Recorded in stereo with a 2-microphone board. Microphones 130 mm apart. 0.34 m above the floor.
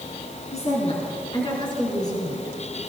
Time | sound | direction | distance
0.5 | a woman speaking | 60° left (ahead or behind) | 3.5 m